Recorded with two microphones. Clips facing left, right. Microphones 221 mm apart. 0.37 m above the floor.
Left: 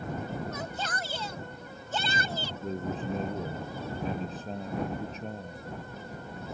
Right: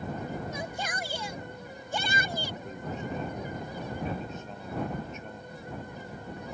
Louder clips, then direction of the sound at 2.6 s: Left 4 dB; 35° left (ahead or behind).